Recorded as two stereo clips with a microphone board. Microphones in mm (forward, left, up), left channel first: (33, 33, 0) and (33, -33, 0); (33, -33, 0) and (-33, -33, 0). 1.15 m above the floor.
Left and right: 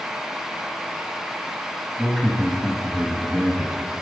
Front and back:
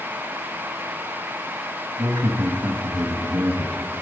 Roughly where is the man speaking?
Behind.